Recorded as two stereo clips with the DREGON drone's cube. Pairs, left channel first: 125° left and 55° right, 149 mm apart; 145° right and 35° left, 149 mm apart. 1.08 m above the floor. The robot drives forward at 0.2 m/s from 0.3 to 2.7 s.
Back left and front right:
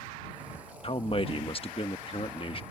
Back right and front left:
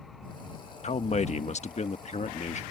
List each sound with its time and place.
0.8 s a man speaking: 175° left